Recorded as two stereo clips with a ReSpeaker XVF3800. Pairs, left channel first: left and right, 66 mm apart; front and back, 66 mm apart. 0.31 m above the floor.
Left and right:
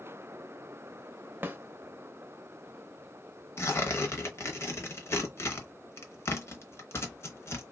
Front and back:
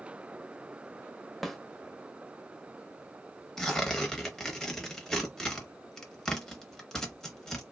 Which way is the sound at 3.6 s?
80° left.